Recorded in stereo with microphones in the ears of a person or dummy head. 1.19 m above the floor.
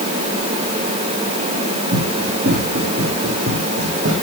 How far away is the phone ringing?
No phone ringing in this recording.